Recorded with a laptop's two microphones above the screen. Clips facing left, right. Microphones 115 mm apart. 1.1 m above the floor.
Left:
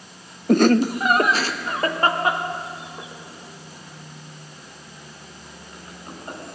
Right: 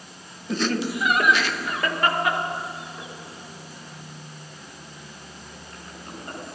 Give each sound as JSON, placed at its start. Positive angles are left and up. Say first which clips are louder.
{"t": 0.5, "sound": "laughter", "louder": "left 9 dB", "side_deg": 55, "distance_m": 0.6}